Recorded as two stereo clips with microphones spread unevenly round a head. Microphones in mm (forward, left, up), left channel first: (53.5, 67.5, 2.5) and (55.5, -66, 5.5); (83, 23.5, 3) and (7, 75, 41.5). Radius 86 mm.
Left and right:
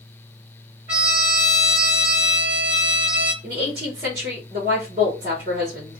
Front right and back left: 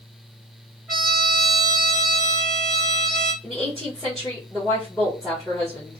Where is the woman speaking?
135° right, 1.3 m.